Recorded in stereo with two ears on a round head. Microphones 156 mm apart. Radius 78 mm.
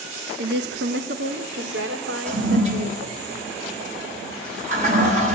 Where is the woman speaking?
65° right (ahead or behind), 1.6 m; by 3.2 s 75° right (ahead or behind), 4 m.